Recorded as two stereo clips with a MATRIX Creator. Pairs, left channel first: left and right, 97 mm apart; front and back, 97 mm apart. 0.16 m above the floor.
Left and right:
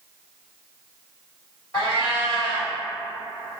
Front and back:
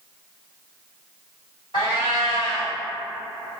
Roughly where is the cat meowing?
Ahead left.